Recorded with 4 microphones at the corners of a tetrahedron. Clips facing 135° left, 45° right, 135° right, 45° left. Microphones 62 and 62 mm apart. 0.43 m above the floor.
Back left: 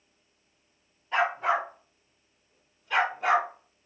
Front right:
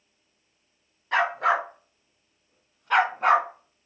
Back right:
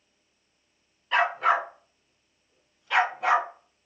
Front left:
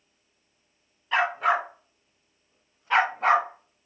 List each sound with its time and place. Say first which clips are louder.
1.1 s a dog barking: front right 3 dB, even; 40° right, 1.8 m; by 3.9 s 10° left, 1.2 m